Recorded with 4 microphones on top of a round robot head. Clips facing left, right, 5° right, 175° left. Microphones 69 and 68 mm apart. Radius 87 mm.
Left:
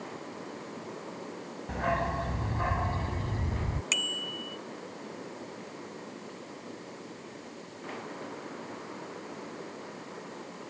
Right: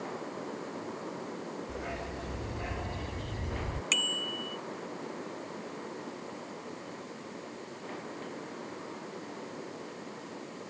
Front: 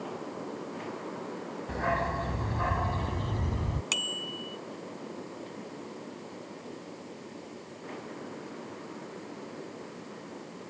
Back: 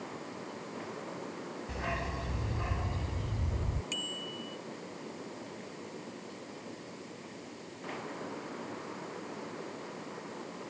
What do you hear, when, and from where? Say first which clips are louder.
1.7 s a dog barking: left 8 dB, front 8 dB; 45° left; by 3.8 s 20° left
3.9 s a bicycle bell: right 1 dB, front 4 dB; 5° left